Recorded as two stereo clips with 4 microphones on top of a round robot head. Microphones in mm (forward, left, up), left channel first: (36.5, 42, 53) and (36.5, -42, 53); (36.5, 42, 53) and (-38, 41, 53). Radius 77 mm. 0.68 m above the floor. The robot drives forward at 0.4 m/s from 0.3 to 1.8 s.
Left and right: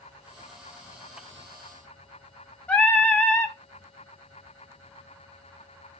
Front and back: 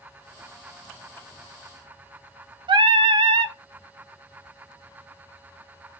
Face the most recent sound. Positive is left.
turn(degrees=165)